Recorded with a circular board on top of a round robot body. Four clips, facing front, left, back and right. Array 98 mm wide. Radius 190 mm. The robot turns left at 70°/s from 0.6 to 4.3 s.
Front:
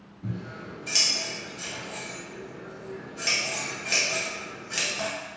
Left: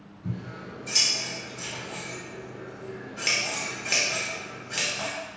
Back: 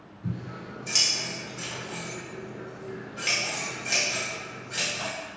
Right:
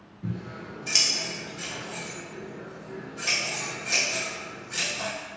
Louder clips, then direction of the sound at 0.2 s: Right 1 dB, even; 65° right.